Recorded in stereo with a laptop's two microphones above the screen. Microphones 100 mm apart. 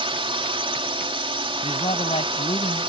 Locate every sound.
0.0 s a drone: 65° right (ahead or behind)
1.6 s a man speaking: 80° left